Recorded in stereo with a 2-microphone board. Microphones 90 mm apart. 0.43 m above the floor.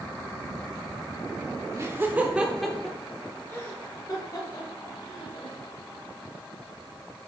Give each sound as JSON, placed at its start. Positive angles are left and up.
{"t": 1.8, "sound": "laughter", "side_deg": -30, "distance_m": 0.9}